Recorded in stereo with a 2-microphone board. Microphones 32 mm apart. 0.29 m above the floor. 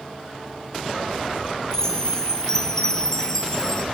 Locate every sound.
1.7 s a chime: 20° left (ahead or behind), 1.4 m